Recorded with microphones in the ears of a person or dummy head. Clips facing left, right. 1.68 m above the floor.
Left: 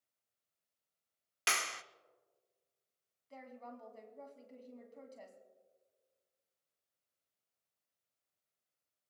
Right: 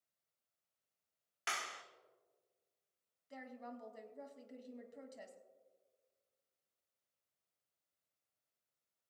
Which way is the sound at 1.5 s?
60° left (ahead or behind).